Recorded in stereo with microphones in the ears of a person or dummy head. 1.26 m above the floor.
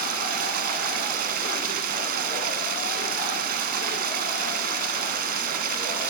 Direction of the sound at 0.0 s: 55° right (ahead or behind).